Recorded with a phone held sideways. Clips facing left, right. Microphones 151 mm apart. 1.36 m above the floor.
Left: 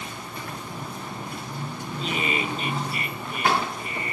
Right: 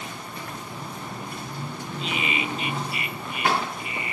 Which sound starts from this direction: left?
Laughter, at 2.0 s.